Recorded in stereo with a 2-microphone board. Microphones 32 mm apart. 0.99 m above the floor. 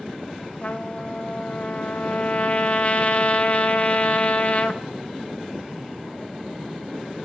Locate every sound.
0.6 s a trumpet: 45° left (ahead or behind), 0.6 m